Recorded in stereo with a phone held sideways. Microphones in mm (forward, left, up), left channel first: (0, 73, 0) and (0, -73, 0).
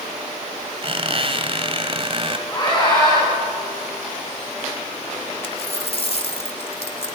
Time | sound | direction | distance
0.8 | a squeak | 40° right (ahead or behind) | 1.8 m
2.5 | a scream | 30° left (ahead or behind) | 9 m
5.4 | a dropped coin | 45° left (ahead or behind) | 2 m